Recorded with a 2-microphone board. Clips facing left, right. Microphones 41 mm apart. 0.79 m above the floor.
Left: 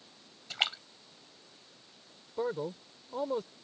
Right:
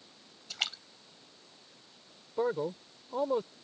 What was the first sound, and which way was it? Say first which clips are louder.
A splash: left 4 dB; 25° left (ahead or behind).